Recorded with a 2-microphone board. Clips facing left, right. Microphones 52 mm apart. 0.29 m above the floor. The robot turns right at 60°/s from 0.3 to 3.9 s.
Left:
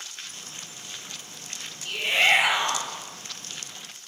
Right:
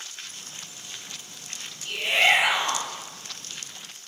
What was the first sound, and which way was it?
A shout, 20° right (ahead or behind).